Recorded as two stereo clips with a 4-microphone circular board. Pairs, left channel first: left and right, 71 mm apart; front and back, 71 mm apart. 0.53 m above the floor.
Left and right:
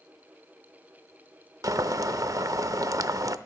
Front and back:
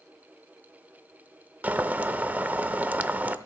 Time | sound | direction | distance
1.6 | boiling | 115° right | 0.5 m